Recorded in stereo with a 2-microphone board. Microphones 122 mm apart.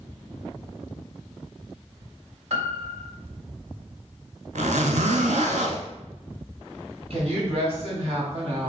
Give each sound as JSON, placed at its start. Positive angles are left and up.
{"t": 2.5, "sound": "a piano", "side_deg": -55, "distance_m": 0.8}
{"t": 4.5, "sound": "a zipper", "side_deg": -85, "distance_m": 0.8}
{"t": 7.1, "sound": "a woman speaking", "side_deg": -60, "distance_m": 2.0}